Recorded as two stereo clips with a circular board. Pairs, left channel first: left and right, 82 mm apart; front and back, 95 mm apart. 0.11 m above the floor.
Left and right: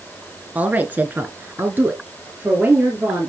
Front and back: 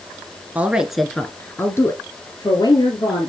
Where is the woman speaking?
130° right, 1.2 m; by 3.3 s 20° right, 2.5 m.